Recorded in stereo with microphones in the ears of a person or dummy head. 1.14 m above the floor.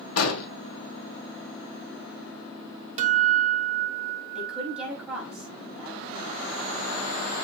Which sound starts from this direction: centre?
A woman speaking, at 4.3 s.